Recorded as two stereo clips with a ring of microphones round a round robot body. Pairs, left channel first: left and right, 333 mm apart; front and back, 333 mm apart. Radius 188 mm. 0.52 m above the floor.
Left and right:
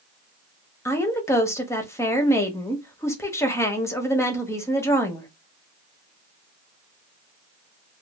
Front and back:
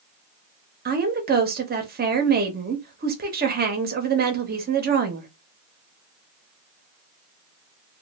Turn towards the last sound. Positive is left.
turn(degrees=165)